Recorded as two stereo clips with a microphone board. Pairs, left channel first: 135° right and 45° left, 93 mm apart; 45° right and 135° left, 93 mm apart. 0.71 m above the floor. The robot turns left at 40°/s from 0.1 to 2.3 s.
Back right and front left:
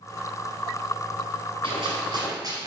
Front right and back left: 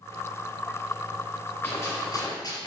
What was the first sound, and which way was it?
A gunshot, 25° left.